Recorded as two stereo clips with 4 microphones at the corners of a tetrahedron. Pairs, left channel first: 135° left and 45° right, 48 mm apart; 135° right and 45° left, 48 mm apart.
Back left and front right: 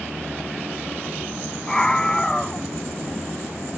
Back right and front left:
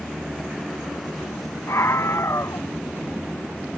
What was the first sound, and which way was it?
A scream, 150° right.